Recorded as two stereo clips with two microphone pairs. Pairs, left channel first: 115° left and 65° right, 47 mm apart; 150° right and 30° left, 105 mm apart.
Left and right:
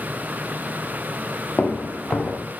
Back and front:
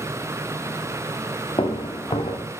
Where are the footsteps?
175° left, 1.2 m.